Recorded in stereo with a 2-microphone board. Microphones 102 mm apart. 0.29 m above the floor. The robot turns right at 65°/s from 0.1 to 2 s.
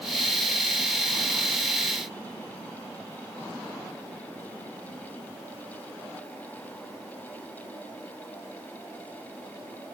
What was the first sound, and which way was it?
Only background noise.